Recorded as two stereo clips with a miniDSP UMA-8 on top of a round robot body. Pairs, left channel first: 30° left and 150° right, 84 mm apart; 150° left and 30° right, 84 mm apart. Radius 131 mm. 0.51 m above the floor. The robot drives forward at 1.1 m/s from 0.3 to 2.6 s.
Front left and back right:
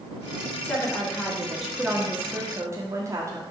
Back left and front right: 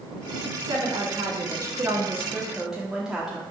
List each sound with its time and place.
0.6 s a woman speaking: 35° right, 2.5 m; by 3.4 s 110° right, 1.7 m